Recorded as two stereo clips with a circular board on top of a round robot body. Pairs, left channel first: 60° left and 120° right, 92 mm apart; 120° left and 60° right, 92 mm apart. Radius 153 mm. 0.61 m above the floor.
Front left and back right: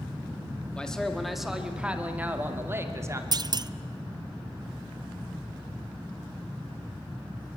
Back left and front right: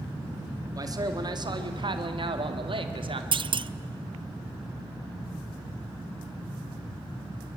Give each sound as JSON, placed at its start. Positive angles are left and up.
{"t": 0.7, "sound": "a man speaking", "azimuth_deg": -20, "distance_m": 1.9}
{"t": 3.3, "sound": "a clunk", "azimuth_deg": -80, "distance_m": 0.6}